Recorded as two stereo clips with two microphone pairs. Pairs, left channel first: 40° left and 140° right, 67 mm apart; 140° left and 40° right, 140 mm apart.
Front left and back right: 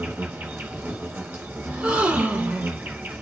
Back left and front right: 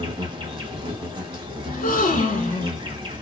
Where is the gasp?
155° left, 0.8 m.